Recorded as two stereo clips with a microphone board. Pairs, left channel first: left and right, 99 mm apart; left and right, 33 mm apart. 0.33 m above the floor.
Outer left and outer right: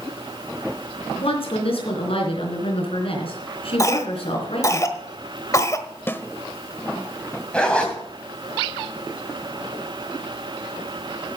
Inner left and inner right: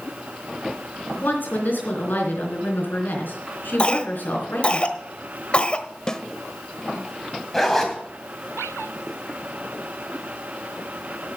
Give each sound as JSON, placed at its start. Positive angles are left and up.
{"t": 1.2, "sound": "a woman speaking", "side_deg": 75, "distance_m": 3.5}
{"t": 3.8, "sound": "a cough", "side_deg": 35, "distance_m": 1.3}
{"t": 6.1, "sound": "a snare drum", "side_deg": 20, "distance_m": 0.7}
{"t": 7.5, "sound": "a zipper", "side_deg": 10, "distance_m": 2.5}